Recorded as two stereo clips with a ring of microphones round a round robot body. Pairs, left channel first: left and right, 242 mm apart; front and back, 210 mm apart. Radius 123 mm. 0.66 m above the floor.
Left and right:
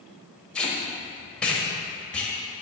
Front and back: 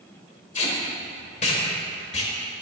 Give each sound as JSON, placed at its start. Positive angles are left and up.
{"t": 0.6, "sound": "tape being pulled", "azimuth_deg": 10, "distance_m": 1.0}